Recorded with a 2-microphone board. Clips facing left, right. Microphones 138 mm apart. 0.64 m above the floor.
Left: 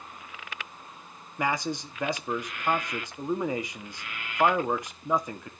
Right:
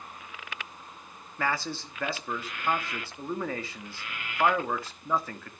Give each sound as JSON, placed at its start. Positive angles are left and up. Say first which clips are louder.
{"t": 1.4, "sound": "a man speaking", "louder": "left 2 dB", "side_deg": 15, "distance_m": 1.1}